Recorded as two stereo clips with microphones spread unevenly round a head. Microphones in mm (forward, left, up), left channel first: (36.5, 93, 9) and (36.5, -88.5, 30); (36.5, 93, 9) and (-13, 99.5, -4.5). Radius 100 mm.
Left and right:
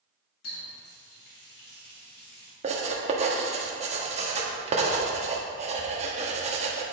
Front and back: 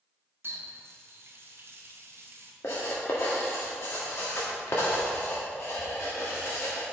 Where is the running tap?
135° left, 1.8 m.